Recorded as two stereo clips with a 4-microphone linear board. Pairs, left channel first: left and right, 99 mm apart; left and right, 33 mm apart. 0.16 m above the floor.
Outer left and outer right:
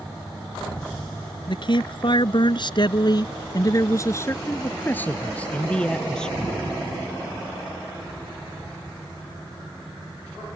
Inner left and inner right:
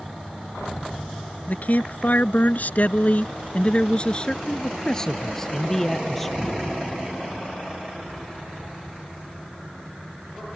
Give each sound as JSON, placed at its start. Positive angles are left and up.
{"t": 1.5, "sound": "a man speaking", "side_deg": 55}